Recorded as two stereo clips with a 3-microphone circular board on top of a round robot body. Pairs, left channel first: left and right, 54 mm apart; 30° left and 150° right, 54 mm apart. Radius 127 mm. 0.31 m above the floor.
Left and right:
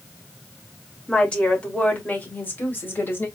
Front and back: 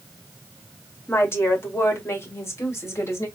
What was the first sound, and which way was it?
A woman speaking, 20° left.